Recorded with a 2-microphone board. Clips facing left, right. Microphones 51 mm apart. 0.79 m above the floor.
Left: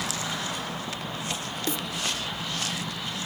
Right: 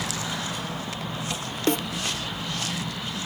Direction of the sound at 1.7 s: 55° right (ahead or behind).